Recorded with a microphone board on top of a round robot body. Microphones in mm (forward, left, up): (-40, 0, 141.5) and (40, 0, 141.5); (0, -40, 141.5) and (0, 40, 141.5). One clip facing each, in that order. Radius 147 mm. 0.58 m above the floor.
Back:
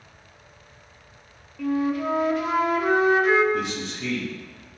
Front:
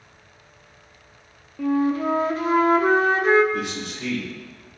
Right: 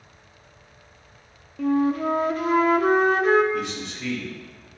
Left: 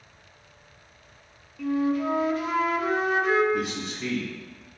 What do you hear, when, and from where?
1.6 s a flute: 50° right, 0.8 m
3.5 s a man speaking: 10° left, 3 m